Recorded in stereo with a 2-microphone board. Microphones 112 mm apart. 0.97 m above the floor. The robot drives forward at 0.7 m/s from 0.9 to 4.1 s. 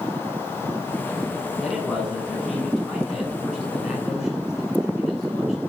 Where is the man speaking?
Centre (ahead or behind), 9 m.